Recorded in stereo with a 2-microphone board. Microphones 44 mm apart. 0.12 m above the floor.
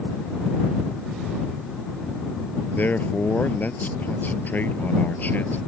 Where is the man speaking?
45° left (ahead or behind).